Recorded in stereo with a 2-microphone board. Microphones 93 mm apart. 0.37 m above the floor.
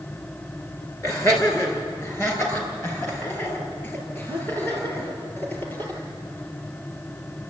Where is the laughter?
30° left (ahead or behind), 5.5 m; by 6.0 s 25° left (ahead or behind), 8 m.